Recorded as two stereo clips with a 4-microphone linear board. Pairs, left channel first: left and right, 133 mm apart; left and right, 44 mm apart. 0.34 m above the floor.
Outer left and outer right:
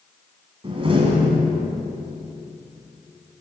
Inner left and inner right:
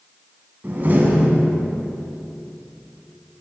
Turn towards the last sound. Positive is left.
turn(degrees=-40)  # may be behind; listen again after turning